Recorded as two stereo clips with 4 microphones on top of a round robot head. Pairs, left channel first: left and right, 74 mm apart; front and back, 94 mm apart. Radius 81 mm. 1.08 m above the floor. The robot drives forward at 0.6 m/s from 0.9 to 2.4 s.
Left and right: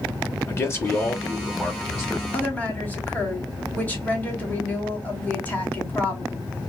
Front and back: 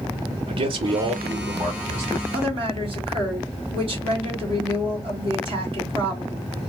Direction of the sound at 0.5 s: 150° left.